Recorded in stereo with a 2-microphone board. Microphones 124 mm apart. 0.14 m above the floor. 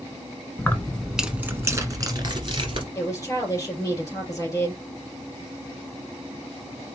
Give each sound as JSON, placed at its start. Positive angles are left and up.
{"t": 0.6, "sound": "keys jangling", "side_deg": 20, "distance_m": 0.9}
{"t": 3.0, "sound": "a woman speaking", "side_deg": 25, "distance_m": 3.5}